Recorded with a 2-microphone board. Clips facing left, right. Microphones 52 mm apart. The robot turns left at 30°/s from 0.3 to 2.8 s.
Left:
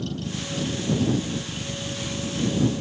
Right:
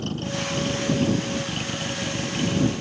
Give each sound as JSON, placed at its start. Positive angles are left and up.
{"t": 0.0, "sound": "a vehicle", "side_deg": -50}